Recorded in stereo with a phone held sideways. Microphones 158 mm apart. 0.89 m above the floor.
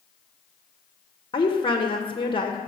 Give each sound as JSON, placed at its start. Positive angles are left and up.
{"t": 1.3, "sound": "a woman speaking", "side_deg": 30, "distance_m": 0.6}